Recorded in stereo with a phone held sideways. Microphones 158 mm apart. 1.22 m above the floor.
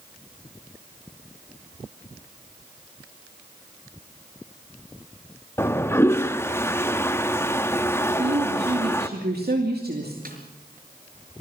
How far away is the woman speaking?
About 2.5 m.